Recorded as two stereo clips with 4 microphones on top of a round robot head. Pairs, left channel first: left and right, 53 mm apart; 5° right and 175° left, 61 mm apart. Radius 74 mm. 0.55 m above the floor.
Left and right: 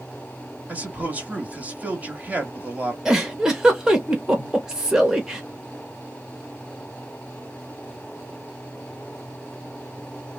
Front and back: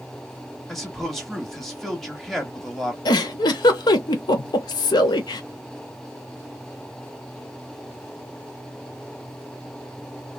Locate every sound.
0.7 s a man speaking: 90° right, 1.3 m
3.0 s a giggle: 10° right, 0.5 m